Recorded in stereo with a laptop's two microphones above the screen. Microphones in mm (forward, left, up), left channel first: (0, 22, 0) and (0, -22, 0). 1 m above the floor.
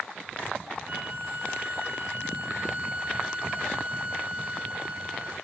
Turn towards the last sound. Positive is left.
turn(degrees=-30)  # may be behind; listen again after turning